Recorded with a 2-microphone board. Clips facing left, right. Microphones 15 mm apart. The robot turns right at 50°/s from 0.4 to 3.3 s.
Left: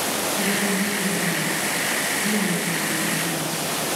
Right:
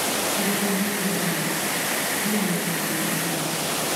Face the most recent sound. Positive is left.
turn(degrees=130)